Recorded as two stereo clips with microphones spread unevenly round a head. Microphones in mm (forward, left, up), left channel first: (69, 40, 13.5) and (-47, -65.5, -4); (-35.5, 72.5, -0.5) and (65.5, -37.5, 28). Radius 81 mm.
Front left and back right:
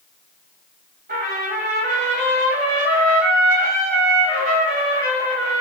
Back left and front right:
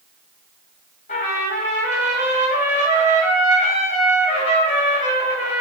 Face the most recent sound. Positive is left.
turn(degrees=180)